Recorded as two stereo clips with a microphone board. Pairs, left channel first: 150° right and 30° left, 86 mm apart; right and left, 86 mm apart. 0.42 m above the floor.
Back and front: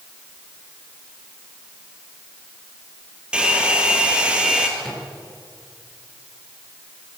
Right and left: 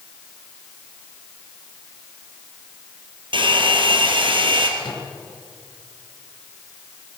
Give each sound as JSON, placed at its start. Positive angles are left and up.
{"t": 3.3, "sound": "a hair dryer", "azimuth_deg": 110, "distance_m": 4.0}
{"t": 4.8, "sound": "a microwave", "azimuth_deg": -60, "distance_m": 6.0}